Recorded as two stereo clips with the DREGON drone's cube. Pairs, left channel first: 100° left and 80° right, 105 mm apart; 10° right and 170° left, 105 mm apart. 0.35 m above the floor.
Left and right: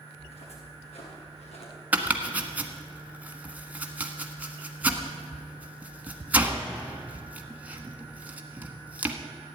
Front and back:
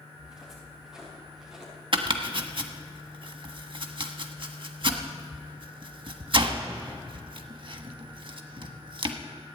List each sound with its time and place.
0.1 s footsteps: 85° left, 8 m
1.9 s chopping: 155° right, 1.2 m